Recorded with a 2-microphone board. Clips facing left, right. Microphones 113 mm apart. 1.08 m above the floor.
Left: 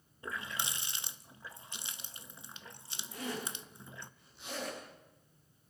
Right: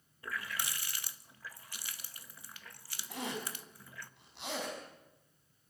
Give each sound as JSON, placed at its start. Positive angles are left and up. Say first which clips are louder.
{"t": 0.2, "sound": "a running tap", "louder": "left 1 dB", "side_deg": 25, "distance_m": 0.6}
{"t": 3.1, "sound": "a zipper", "louder": "even", "side_deg": -80, "distance_m": 6.0}